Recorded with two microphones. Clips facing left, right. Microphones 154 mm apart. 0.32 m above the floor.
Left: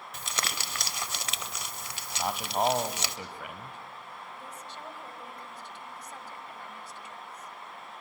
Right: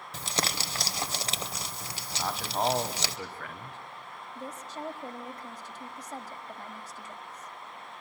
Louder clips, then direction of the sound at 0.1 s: Right 4 dB; 35° right (ahead or behind).